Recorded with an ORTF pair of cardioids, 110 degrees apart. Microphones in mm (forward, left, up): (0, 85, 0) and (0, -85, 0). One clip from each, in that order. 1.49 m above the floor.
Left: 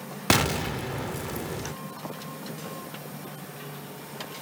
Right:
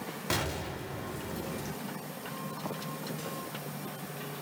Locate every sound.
0.3 s an explosion: 55° left, 0.5 m